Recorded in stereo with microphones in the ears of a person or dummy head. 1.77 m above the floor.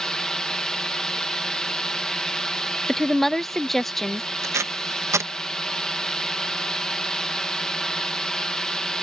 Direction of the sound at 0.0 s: 5° left (ahead or behind).